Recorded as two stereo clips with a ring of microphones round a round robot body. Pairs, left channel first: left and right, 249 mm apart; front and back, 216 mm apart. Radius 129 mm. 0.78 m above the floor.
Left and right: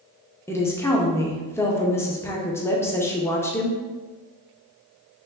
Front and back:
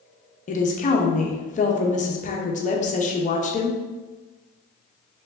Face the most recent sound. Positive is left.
turn(degrees=15)